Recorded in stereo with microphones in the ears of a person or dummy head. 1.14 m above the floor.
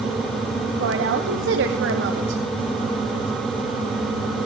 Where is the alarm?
No alarm in this recording.